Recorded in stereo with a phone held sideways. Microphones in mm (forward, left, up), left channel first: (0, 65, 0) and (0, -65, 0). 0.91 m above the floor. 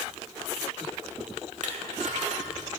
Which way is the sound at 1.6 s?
70° right (ahead or behind).